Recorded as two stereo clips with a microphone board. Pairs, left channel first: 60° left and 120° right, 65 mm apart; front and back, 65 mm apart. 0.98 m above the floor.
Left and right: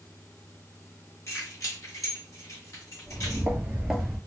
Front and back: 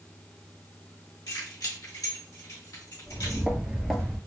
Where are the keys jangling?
20° left, 1.3 m; by 3.5 s 30° left, 2.5 m.